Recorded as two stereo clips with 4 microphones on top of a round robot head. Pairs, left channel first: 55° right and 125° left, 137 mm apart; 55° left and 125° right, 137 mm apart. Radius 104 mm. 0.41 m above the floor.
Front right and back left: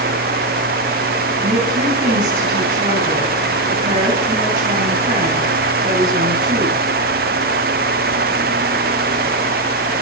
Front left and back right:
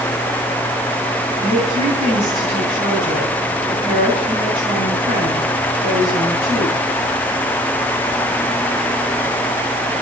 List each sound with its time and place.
1.4 s a woman speaking: straight behind, 4 m